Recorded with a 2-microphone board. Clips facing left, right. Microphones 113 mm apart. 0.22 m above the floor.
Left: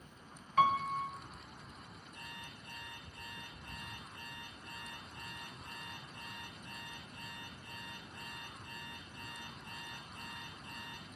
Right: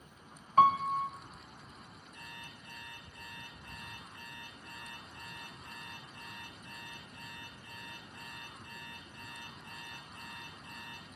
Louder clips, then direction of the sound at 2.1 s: Even; 25° left (ahead or behind).